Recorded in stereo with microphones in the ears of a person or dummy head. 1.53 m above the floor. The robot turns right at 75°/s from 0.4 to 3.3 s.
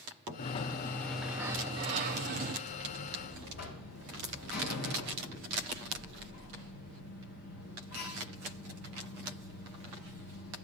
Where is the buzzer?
75° left, 4 m; by 10.6 s 120° left, 4 m.